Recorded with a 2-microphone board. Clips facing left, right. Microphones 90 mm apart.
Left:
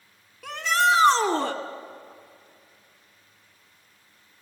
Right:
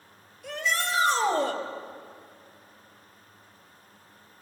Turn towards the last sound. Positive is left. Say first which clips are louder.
# left 8 dB
turn(degrees=70)  # may be behind; listen again after turning